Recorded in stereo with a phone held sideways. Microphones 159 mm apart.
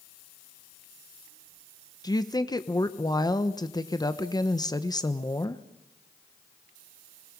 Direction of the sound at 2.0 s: 25° left (ahead or behind).